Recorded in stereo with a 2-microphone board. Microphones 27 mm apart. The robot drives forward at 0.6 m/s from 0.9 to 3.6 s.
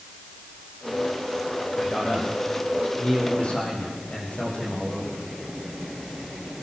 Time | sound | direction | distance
1.8 | a man speaking | 50° left (ahead or behind) | 6 m